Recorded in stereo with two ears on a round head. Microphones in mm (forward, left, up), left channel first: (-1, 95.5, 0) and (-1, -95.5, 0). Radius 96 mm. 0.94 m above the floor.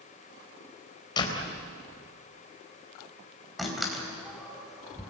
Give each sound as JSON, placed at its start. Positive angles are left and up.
{"t": 1.2, "sound": "a door slam", "side_deg": 20, "distance_m": 3.5}
{"t": 3.6, "sound": "a door slam", "side_deg": 0, "distance_m": 4.0}